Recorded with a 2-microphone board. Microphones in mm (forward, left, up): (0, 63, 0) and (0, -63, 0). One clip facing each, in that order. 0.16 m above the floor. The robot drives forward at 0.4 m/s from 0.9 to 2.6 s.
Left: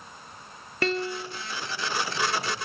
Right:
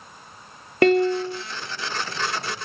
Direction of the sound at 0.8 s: 60° right (ahead or behind).